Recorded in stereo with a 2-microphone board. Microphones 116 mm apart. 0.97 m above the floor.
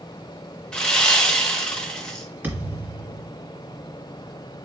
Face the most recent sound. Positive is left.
turn(degrees=-20)  # may be behind; listen again after turning